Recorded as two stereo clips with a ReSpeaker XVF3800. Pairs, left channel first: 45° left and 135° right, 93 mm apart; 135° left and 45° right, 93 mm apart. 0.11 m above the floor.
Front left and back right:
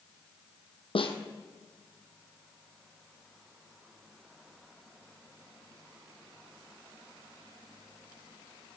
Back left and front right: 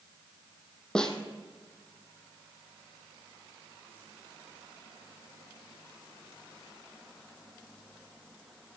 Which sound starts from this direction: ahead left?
A snare drum, at 0.9 s.